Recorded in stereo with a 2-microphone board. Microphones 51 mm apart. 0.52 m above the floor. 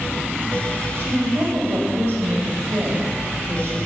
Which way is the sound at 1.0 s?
70° right (ahead or behind).